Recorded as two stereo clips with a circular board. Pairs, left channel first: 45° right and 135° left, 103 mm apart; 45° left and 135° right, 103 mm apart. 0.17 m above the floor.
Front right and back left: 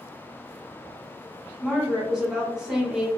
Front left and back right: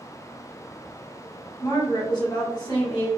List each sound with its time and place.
1.6 s a woman speaking: 55° left, 1.3 m